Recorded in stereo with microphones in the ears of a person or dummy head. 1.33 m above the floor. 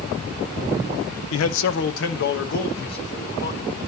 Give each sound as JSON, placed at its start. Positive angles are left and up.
{"t": 1.3, "sound": "a man speaking", "side_deg": 75, "distance_m": 0.6}